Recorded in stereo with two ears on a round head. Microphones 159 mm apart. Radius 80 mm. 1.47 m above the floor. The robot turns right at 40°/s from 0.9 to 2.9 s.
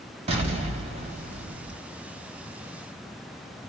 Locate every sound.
0.3 s an explosion: 145° right, 1.4 m; by 1.8 s 110° right, 1.4 m